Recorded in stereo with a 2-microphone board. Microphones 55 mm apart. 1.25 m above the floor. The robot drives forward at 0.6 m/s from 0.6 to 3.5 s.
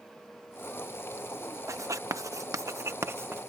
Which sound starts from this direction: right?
Writing, at 1.7 s.